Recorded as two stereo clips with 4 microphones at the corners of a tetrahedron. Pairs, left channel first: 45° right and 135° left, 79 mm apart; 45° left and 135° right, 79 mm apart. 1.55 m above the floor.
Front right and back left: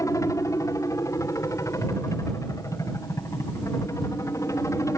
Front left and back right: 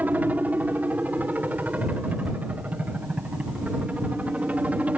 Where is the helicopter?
75° right; by 5.0 s 70° right.